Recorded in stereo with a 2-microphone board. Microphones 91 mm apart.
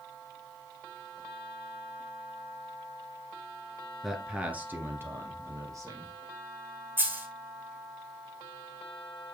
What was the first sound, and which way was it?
A man speaking, centre (ahead or behind).